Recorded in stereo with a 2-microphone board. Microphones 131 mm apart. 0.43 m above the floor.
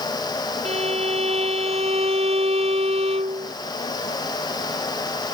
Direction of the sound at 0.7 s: 50° right (ahead or behind).